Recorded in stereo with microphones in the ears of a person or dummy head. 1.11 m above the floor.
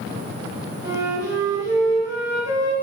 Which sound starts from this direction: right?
A flute, at 0.8 s.